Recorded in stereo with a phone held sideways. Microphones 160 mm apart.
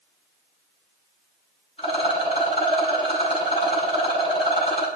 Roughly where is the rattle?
Left.